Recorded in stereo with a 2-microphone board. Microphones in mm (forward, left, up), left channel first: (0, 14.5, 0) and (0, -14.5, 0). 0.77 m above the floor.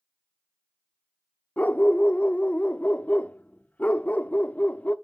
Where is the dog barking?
60° left (ahead or behind), 0.5 m.